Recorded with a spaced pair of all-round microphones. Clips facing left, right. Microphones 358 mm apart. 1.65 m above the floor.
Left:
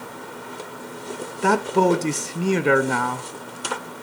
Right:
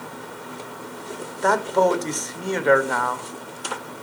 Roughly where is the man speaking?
Left.